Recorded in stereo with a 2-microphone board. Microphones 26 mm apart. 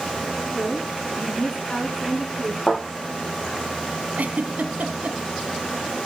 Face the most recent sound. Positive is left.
turn(degrees=-70)  # may be behind; listen again after turning